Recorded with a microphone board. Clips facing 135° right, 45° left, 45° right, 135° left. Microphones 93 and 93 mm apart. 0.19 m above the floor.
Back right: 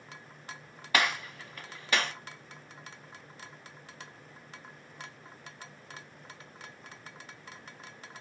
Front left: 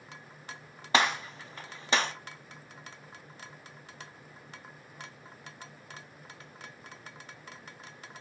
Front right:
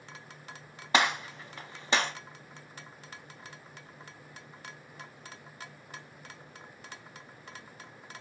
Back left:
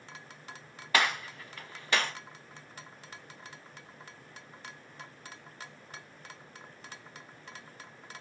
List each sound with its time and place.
0.9 s a gunshot: 5° left, 0.5 m